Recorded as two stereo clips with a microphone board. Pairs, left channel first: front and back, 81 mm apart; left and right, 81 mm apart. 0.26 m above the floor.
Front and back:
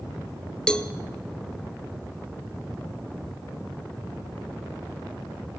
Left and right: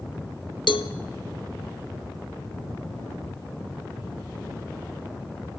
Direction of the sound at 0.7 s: 80° left.